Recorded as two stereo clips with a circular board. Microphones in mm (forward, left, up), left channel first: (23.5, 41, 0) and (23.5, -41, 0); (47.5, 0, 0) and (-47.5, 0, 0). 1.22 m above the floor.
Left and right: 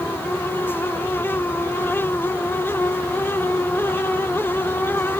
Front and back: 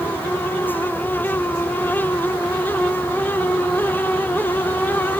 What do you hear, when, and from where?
Only background noise.